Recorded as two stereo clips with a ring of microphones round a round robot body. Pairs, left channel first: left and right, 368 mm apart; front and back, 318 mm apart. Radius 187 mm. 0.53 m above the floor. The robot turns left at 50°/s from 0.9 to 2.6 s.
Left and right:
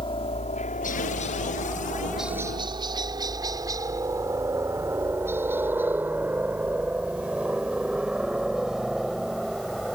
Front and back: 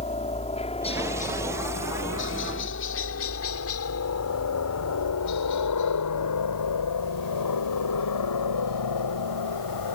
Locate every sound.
0.0 s a helicopter: 35° left; by 9.9 s straight ahead